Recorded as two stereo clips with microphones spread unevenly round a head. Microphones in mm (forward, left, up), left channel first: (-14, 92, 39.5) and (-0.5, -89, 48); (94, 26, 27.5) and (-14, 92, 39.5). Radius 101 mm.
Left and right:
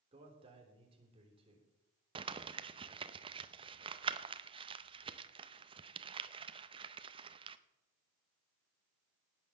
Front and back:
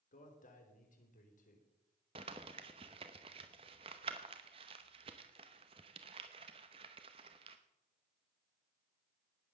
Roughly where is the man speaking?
Ahead right.